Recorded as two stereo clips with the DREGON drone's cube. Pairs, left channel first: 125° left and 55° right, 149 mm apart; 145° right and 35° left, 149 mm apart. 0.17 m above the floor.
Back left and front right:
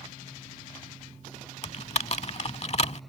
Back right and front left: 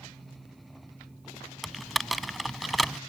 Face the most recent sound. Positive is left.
turn(degrees=125)